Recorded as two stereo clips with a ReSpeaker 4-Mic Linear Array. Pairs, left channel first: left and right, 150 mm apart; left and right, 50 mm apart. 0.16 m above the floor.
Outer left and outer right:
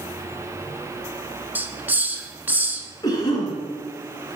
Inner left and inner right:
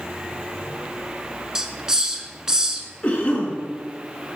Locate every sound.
1.6 s a hiss: 15° right (ahead or behind), 0.6 m
3.0 s a cough: 30° left (ahead or behind), 2.0 m